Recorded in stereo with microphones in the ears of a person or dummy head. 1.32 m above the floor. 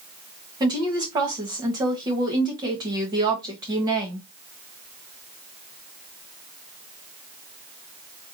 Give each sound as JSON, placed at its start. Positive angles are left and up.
{"t": 0.6, "sound": "a woman speaking", "side_deg": -20, "distance_m": 1.3}